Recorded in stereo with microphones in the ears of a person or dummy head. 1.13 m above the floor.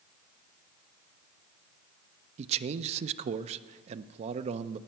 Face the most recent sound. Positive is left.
turn(degrees=-45)  # may be behind; listen again after turning